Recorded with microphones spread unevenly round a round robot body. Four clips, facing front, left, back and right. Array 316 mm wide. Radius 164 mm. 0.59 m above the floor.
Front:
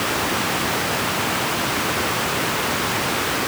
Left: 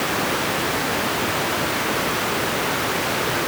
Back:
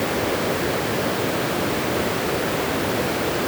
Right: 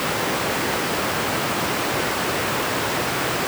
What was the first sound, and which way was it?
Only background noise.